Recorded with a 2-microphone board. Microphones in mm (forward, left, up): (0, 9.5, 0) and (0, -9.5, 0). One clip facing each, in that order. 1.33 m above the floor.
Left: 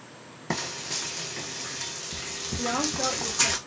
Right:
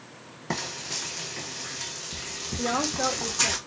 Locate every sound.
0.5 s frying: 10° left (ahead or behind), 0.6 m
2.6 s a woman speaking: 25° right (ahead or behind), 1.0 m